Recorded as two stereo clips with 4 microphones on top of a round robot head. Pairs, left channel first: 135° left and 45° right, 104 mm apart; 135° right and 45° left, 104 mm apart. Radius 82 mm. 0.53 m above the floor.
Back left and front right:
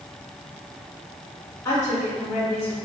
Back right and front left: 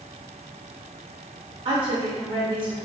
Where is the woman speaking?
70° left, 1.6 m.